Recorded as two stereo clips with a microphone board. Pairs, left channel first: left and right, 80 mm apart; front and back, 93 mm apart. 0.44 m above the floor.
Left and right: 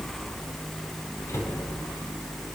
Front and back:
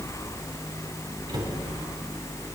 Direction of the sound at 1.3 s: 140° left.